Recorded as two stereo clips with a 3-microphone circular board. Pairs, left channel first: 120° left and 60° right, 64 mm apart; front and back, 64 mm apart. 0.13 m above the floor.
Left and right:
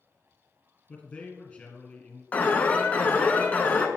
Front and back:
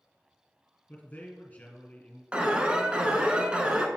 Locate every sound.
0.9 s a man speaking: 60° left, 2 m
2.3 s an alarm: 130° left, 0.8 m